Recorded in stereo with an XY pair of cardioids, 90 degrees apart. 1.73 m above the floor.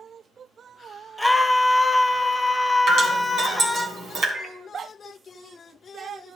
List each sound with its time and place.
1.2 s a scream: 5° left, 0.9 m
2.9 s dripping: 70° right, 2 m
4.3 s a microwave: 15° right, 2 m